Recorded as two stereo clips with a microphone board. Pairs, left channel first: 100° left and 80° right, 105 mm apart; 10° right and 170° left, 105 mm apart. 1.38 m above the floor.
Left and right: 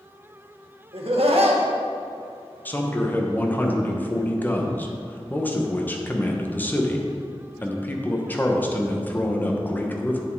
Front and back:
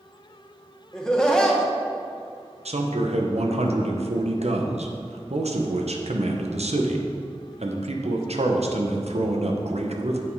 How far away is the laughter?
About 1.7 m.